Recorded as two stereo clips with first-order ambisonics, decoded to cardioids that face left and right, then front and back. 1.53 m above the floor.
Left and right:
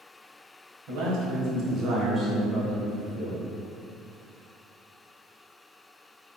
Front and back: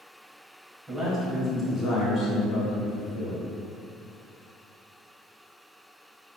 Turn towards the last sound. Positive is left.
turn(degrees=55)